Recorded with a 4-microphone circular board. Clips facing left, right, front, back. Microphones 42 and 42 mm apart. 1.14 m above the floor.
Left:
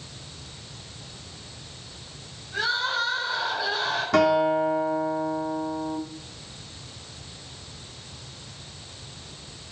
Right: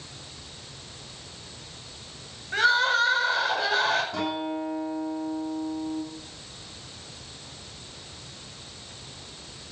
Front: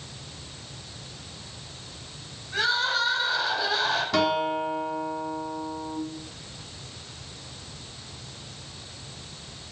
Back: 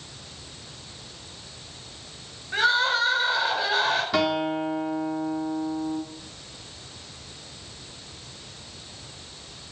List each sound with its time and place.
2.5 s crying: 125° right, 7 m
4.1 s a guitar: 95° left, 3.5 m